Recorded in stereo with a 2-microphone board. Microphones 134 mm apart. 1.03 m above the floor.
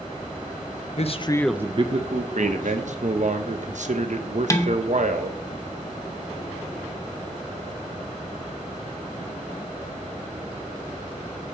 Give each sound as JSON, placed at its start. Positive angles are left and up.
{"t": 1.0, "sound": "a man speaking", "side_deg": 55, "distance_m": 0.8}
{"t": 2.4, "sound": "a man speaking", "side_deg": -65, "distance_m": 0.9}
{"t": 4.5, "sound": "dishes clattering", "side_deg": 25, "distance_m": 0.9}